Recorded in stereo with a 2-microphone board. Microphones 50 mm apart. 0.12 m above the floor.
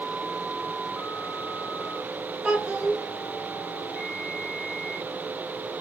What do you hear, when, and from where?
2.4 s a child speaking: 20° right (ahead or behind), 0.9 m